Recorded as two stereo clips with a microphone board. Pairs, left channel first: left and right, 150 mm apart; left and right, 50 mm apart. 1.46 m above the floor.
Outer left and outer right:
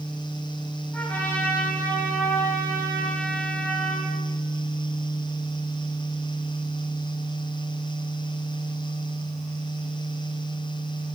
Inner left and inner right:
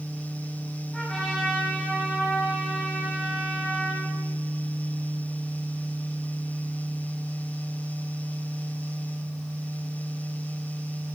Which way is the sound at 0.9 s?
10° left (ahead or behind).